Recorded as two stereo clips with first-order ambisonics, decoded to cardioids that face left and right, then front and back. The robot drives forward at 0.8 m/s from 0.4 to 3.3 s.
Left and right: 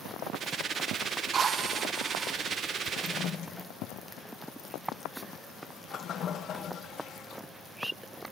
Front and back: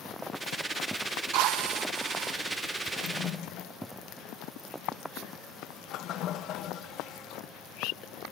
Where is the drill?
155° right, 1.6 m; by 2.4 s 165° right, 2.5 m.